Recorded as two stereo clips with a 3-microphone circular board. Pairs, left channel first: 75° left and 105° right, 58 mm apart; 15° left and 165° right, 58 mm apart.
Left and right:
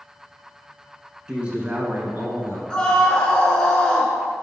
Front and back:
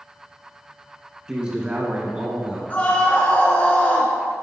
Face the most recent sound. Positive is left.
turn(degrees=15)